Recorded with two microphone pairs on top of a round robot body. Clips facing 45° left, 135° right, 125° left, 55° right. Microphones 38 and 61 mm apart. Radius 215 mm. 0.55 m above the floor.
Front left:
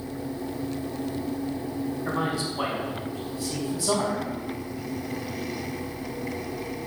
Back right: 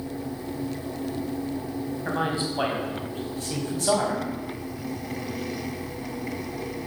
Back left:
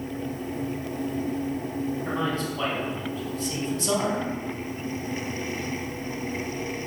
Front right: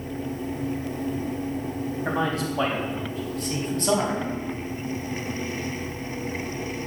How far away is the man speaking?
About 4.5 m.